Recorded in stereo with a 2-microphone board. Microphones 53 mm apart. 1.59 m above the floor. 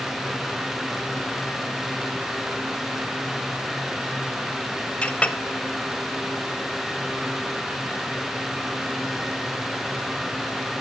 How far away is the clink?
About 0.6 m.